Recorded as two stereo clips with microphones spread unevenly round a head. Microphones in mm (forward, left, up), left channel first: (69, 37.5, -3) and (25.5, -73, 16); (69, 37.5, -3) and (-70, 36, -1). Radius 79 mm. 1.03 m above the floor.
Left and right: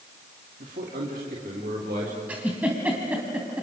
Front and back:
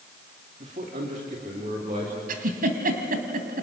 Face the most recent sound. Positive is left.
turn(degrees=170)